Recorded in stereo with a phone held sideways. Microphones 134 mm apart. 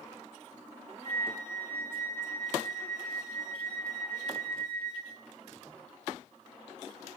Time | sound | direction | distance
1.0 | a flute | 40° right (ahead or behind) | 7 m